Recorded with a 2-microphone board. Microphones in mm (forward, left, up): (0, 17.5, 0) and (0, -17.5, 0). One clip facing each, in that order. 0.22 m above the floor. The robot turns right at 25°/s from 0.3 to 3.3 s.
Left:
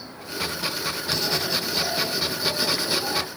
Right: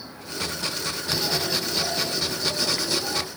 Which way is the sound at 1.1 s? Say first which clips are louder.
Even; 5° right.